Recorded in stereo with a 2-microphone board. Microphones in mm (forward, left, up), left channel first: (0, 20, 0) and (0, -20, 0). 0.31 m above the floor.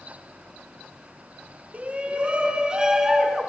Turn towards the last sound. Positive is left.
turn(degrees=-5)  # may be behind; listen again after turning